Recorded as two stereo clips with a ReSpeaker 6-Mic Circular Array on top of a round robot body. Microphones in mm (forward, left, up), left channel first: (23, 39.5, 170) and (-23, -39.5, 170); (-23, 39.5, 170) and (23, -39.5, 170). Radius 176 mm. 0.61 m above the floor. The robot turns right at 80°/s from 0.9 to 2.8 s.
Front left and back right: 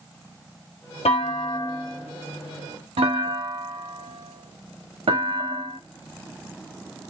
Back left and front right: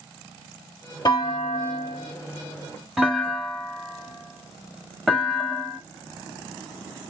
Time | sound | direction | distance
1.1 | a clunk | 75° left | 0.9 m